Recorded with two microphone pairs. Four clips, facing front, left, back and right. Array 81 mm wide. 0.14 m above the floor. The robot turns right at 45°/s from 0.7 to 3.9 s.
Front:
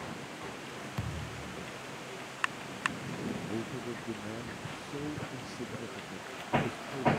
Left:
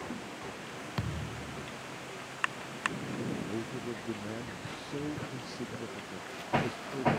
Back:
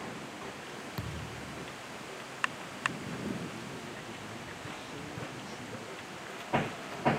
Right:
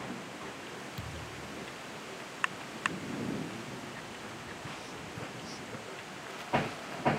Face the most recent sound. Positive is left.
turn(degrees=65)